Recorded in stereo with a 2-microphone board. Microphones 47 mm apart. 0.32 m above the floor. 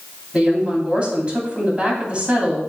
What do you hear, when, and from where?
0.3 s a woman speaking: 25° right (ahead or behind), 2 m